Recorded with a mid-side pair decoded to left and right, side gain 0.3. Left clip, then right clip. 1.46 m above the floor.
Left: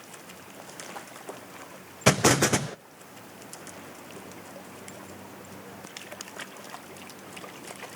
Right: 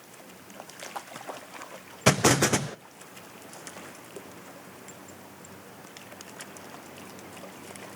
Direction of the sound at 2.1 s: 5° right.